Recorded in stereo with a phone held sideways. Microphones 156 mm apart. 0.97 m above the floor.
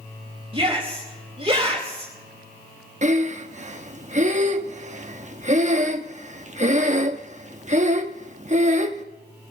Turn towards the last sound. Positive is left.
turn(degrees=-50)  # may be behind; listen again after turning